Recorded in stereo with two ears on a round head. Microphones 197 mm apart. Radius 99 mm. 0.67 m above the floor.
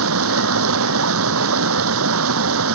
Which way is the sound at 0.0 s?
70° right (ahead or behind).